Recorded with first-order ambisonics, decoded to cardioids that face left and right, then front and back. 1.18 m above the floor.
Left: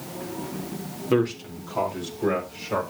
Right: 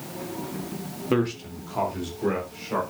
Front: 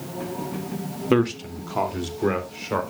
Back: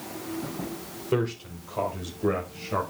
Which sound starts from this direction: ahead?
A man speaking, at 1.1 s.